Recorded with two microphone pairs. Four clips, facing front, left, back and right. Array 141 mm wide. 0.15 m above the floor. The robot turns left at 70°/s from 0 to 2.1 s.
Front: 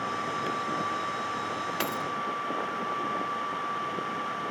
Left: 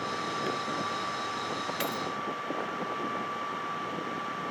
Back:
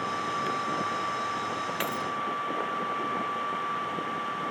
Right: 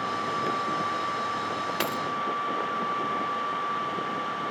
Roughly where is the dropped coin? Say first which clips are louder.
Right 4 dB, even; right.